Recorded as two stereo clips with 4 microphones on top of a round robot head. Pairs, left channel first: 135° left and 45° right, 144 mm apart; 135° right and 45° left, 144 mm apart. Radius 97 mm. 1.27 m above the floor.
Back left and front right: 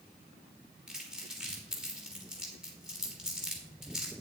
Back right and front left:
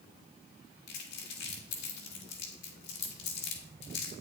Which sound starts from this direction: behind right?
Crumpling, at 0.9 s.